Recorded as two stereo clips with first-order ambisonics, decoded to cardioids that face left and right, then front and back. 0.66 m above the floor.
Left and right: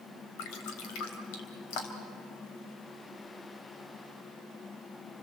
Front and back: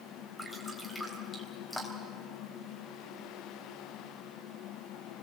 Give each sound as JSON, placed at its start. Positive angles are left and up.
{"t": 0.4, "sound": "dripping", "azimuth_deg": 90, "distance_m": 3.5}